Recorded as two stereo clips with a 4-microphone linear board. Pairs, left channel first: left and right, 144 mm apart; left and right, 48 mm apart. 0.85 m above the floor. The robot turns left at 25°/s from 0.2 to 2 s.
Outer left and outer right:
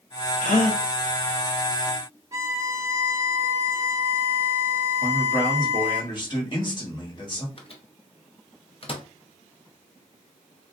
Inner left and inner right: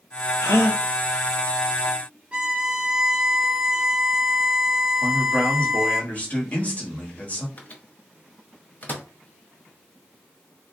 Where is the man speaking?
35° left (ahead or behind), 1.2 m.